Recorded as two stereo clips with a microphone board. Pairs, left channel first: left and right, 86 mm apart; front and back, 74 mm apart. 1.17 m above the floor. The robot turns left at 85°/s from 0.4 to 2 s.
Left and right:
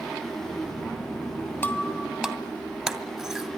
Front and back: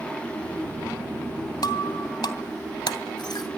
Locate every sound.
1.6 s breaking glass: 25° left, 2.5 m; by 3.5 s 5° right, 2.5 m